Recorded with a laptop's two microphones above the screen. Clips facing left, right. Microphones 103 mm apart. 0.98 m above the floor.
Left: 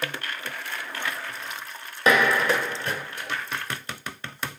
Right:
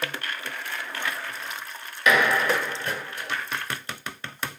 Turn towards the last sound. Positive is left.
turn(degrees=35)  # may be behind; listen again after turning